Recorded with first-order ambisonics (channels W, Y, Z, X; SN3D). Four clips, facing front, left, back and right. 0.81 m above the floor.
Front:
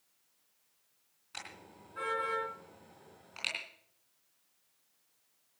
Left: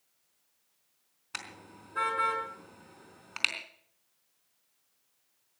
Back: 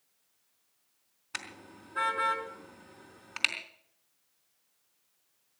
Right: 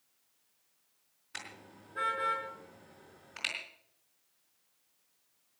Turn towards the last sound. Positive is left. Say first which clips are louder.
# left 3 dB, back 6 dB
turn(degrees=130)